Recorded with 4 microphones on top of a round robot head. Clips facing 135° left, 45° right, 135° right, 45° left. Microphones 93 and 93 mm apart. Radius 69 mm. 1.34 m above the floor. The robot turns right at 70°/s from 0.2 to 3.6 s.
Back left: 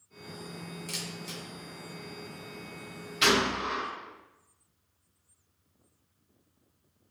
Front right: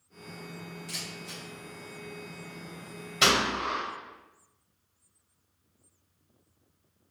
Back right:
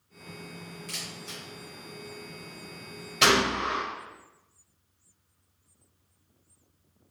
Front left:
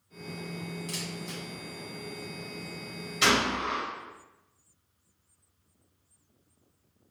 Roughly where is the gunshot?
Right.